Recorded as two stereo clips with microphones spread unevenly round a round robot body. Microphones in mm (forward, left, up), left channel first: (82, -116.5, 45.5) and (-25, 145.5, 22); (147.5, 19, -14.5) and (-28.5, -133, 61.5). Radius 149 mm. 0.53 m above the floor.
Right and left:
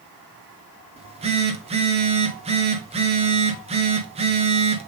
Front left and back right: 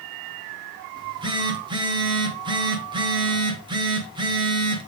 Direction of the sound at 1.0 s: 130° left.